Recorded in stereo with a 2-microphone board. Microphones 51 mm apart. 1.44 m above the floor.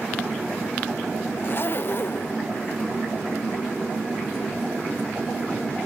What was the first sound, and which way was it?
A zipper, 45° left (ahead or behind).